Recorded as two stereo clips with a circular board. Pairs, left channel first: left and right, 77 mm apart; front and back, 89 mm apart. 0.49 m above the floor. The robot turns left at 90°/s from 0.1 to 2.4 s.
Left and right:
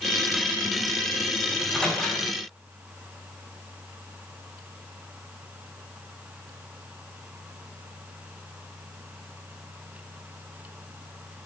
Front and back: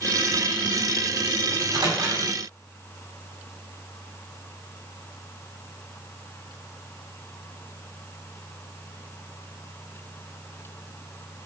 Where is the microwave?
155° right, 1.3 m; by 2.2 s 140° left, 1.3 m.